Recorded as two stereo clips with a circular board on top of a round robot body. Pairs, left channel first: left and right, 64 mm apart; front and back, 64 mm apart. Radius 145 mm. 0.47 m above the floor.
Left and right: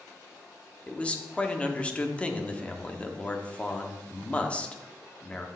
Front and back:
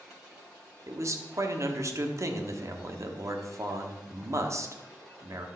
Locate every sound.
0.9 s a man speaking: 160° left, 1.2 m